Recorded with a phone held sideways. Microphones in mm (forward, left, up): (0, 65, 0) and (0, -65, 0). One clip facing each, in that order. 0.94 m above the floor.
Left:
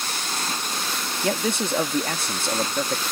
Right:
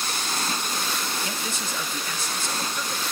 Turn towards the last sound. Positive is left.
turn(degrees=60)  # may be behind; listen again after turning